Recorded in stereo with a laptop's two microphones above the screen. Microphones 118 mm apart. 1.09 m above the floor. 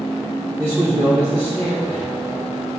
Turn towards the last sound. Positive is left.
turn(degrees=-60)  # may be behind; listen again after turning